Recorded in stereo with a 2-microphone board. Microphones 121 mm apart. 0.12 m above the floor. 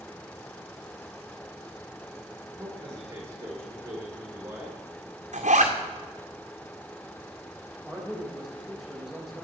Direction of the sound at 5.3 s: 85° right.